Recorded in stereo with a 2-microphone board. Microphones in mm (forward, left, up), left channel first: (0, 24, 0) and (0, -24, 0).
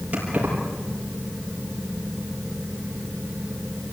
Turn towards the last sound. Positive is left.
turn(degrees=-30)  # may be behind; listen again after turning